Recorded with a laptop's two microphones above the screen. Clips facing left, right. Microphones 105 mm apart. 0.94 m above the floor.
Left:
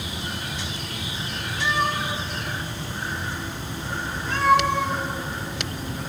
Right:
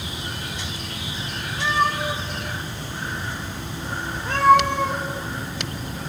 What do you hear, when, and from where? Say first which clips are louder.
1.6 s a cat meowing: right 3 dB; 35° right (ahead or behind), 4.5 m; by 5.0 s 65° right (ahead or behind), 6.5 m